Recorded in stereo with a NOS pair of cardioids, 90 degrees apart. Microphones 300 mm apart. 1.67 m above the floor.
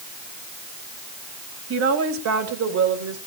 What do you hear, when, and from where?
1.7 s a woman speaking: 55° right, 2.5 m; by 3.2 s 80° right, 4 m